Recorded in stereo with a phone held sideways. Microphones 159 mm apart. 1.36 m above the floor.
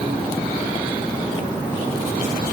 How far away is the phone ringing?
I don't hear a phone ringing.